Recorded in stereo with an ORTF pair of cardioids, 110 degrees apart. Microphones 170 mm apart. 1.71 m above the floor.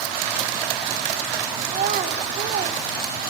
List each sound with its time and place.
1.7 s a child speaking: 55° right, 1.5 m